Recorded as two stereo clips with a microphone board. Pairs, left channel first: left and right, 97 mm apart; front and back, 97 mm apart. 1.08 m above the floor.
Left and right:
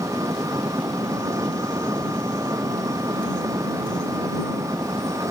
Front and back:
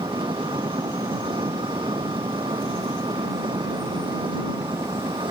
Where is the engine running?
145° right.